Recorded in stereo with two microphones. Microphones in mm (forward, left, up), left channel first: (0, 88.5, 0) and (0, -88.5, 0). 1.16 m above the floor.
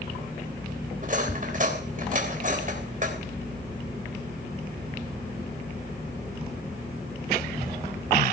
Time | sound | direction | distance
1.0 | cutlery clinking | 45° right (ahead or behind) | 3 m